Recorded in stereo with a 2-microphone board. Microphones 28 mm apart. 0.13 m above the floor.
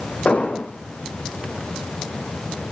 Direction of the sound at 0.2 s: 55° left (ahead or behind).